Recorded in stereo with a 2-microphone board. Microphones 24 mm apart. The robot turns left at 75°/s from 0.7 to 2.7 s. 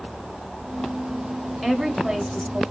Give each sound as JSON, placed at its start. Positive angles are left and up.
{"t": 1.6, "sound": "a woman speaking", "azimuth_deg": -5, "distance_m": 1.4}